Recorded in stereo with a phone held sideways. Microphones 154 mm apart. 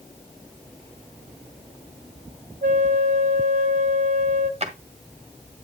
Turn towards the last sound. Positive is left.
turn(degrees=-45)  # may be behind; listen again after turning